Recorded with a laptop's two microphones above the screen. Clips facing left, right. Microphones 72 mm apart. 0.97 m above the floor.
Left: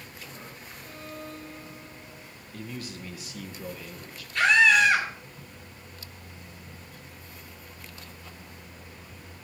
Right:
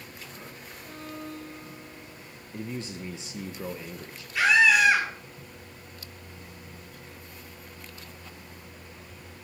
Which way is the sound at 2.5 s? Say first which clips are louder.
Right 3 dB; 25° right (ahead or behind).